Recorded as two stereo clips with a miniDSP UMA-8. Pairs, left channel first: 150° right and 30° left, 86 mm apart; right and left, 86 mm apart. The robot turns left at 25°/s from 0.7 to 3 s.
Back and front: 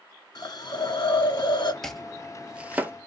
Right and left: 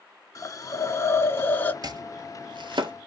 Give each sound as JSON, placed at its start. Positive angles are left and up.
{"t": 0.3, "sound": "a hiss", "azimuth_deg": -130, "distance_m": 0.7}
{"t": 1.8, "sound": "chopping", "azimuth_deg": 125, "distance_m": 0.6}